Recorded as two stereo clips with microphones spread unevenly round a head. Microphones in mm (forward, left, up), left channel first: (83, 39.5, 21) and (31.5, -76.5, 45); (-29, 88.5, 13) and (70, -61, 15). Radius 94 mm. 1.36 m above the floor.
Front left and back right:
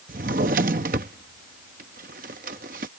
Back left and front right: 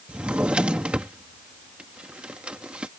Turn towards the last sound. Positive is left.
turn(degrees=-140)